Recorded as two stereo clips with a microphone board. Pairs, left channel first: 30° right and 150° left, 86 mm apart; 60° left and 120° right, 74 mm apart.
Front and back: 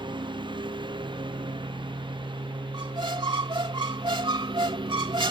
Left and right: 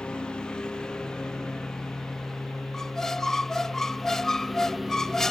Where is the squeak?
145° left.